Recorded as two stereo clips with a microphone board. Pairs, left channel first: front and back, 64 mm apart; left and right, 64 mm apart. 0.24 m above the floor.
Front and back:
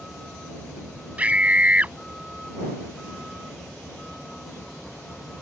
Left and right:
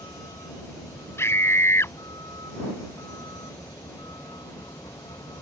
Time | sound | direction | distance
0.0 | a vehicle | 80° left | ?
1.2 | a scream | 120° left | ?